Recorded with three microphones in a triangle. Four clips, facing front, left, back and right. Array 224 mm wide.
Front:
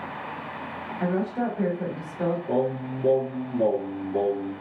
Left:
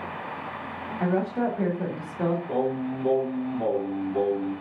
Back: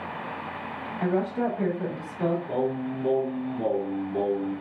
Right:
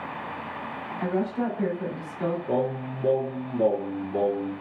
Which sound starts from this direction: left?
A woman speaking, at 1.0 s.